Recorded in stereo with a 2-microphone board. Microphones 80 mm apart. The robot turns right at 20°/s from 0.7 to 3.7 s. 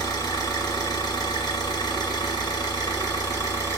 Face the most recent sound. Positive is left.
turn(degrees=140)